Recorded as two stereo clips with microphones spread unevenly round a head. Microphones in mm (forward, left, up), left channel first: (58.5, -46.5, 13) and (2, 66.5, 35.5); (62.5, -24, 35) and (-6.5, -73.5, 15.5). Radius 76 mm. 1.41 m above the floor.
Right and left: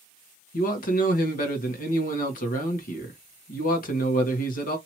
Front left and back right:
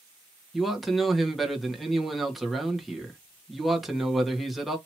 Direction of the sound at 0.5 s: 55° right.